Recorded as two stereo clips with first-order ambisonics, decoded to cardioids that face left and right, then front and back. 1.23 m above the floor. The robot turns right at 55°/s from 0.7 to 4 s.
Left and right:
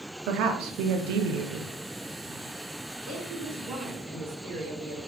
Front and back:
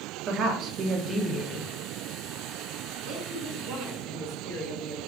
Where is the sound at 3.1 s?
175° right, 1.8 m; by 5.0 s 125° right, 1.8 m.